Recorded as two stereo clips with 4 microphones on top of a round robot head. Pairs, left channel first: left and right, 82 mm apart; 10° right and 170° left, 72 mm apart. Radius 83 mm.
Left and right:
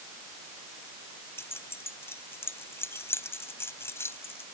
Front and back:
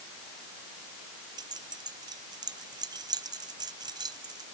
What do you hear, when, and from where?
1.4 s keys jangling: 150° left